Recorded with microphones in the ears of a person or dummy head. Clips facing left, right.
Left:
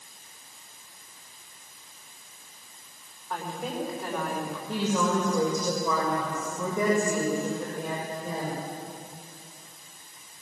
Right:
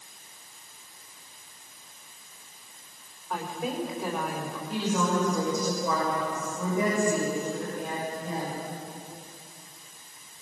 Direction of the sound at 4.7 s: 80° left.